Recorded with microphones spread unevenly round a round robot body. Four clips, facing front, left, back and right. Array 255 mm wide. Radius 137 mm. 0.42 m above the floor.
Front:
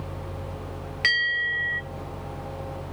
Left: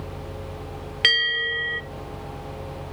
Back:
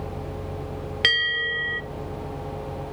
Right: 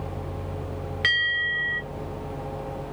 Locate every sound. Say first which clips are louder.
1.0 s a bell: left 2 dB, even; 130° left, 1.9 m